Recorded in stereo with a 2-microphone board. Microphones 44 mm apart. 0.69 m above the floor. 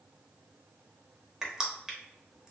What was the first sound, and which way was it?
Crushing, 15° right (ahead or behind).